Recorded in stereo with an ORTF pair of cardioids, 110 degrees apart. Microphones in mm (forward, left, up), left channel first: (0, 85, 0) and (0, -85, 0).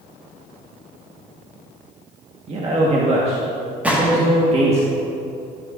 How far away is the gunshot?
About 1.5 m.